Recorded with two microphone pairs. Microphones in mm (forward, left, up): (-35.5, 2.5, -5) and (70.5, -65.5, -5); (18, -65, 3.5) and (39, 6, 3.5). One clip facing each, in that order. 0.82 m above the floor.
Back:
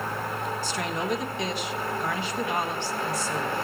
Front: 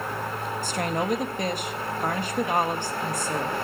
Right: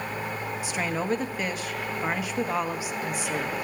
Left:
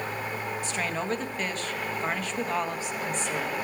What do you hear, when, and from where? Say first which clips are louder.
0.6 s a woman speaking: front 5 dB, right 4 dB; 30° right, 0.9 m